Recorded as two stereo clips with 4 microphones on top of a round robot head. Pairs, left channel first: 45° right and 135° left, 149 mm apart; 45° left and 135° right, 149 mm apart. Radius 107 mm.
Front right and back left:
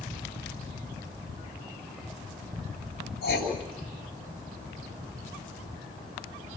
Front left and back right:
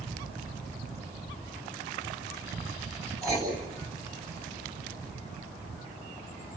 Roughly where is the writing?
Ahead right.